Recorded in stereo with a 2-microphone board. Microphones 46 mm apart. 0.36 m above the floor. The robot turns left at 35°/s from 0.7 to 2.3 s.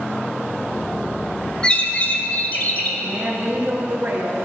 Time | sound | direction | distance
1.6 | a bird | 20° left (ahead or behind) | 0.8 m
3.0 | a woman speaking | 35° right (ahead or behind) | 2 m